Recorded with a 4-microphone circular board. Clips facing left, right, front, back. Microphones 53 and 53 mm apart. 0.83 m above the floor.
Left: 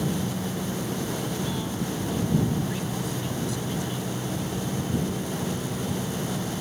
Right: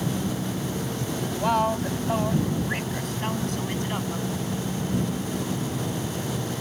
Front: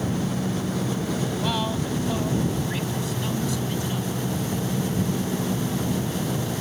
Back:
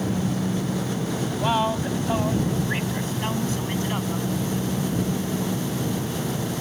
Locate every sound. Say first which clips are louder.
1.3 s a woman speaking: right 7 dB, back 3 dB; 115° right; by 4.3 s 135° right